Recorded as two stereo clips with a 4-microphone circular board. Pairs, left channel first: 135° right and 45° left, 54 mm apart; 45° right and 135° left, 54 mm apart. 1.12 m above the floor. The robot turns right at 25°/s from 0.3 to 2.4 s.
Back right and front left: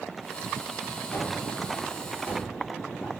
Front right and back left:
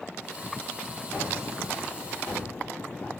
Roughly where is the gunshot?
Right.